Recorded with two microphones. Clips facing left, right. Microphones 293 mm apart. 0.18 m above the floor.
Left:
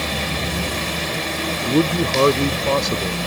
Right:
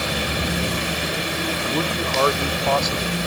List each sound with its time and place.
1.6 s a man speaking: 40° left (ahead or behind)